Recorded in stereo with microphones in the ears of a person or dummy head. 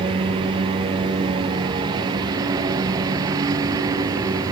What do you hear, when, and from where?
0.0 s a lawn mower: 25° right (ahead or behind); by 4.5 s 20° right (ahead or behind)